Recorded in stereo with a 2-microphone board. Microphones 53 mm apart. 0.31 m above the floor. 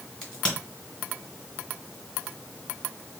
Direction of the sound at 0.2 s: 20° left (ahead or behind).